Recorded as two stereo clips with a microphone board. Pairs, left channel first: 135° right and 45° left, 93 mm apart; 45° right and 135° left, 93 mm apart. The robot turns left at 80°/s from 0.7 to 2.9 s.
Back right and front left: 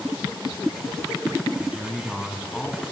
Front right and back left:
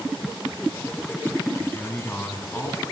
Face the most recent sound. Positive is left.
turn(degrees=-110)